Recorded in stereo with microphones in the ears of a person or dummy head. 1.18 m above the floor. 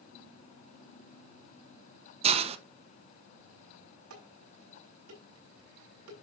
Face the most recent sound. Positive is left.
turn(degrees=-80)